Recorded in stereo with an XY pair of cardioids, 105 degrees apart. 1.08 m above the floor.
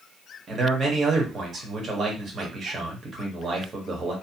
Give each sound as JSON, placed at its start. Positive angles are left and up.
{"t": 0.5, "sound": "a man speaking", "azimuth_deg": -45, "distance_m": 1.4}